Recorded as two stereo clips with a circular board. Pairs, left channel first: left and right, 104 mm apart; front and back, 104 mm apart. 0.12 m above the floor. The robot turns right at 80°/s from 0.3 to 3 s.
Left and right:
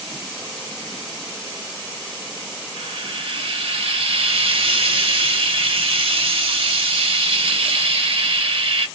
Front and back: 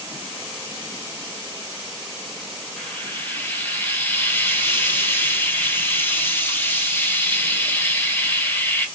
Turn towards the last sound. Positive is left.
turn(degrees=-70)